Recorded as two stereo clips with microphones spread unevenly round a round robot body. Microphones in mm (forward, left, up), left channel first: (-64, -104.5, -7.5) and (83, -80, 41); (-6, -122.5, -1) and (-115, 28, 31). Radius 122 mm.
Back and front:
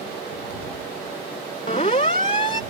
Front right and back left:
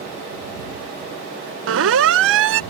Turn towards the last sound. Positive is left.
turn(degrees=120)